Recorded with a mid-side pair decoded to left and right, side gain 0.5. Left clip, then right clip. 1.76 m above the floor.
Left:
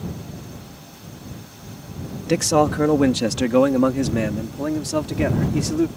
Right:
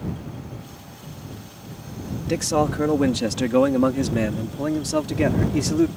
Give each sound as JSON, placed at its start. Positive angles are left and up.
{"t": 2.3, "sound": "a man speaking", "azimuth_deg": 30}